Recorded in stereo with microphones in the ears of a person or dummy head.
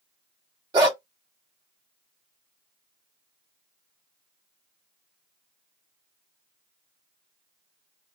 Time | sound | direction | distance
0.7 | a dog barking | 20° right (ahead or behind) | 1.3 m